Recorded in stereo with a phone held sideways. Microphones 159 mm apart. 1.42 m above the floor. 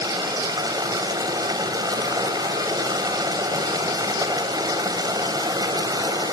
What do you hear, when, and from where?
0.0 s running water: 25° right (ahead or behind), 3 m